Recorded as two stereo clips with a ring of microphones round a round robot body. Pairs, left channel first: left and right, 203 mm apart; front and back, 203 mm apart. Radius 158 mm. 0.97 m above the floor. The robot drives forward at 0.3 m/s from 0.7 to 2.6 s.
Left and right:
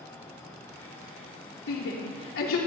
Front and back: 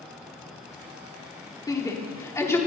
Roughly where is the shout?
Left.